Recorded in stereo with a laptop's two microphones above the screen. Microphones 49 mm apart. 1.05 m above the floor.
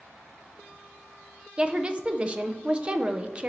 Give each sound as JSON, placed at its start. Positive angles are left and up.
{"t": 1.6, "sound": "a woman speaking", "side_deg": -20, "distance_m": 0.6}